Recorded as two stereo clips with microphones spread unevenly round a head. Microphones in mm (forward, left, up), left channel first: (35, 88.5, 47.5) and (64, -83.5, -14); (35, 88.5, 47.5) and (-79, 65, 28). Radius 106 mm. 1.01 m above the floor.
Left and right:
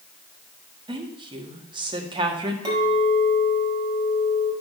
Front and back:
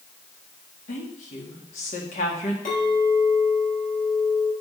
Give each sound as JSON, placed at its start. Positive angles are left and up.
{"t": 0.9, "sound": "a woman speaking", "azimuth_deg": -20, "distance_m": 1.6}
{"t": 2.6, "sound": "a clink", "azimuth_deg": -10, "distance_m": 4.0}